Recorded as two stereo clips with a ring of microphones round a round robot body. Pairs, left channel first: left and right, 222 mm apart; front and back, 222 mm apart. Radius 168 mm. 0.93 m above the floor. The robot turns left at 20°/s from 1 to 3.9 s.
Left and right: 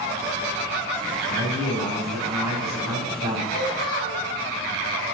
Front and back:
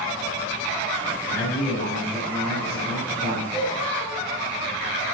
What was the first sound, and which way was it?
A man speaking, 80° right.